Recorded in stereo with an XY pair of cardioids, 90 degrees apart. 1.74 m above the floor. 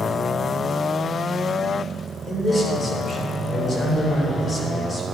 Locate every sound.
2.3 s a man speaking: 45° left, 6.5 m